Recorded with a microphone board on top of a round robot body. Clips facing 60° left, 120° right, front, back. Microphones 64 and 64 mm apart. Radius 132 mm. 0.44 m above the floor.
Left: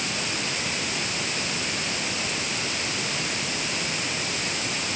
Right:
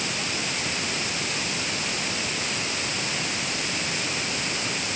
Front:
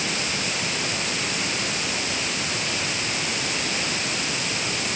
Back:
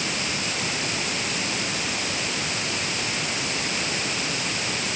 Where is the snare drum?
I don't hear a snare drum.